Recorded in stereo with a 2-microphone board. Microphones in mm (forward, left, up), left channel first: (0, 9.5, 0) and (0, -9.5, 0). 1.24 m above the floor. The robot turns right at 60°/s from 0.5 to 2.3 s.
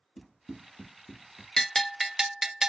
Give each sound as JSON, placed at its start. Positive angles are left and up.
{"t": 0.2, "sound": "running footsteps", "side_deg": 10, "distance_m": 1.4}
{"t": 1.6, "sound": "a bell", "azimuth_deg": 155, "distance_m": 0.7}